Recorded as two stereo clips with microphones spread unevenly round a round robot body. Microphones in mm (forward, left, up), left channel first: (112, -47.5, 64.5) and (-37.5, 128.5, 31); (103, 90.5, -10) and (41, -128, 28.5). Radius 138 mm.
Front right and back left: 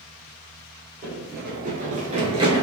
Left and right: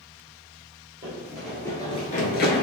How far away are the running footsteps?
About 1.0 m.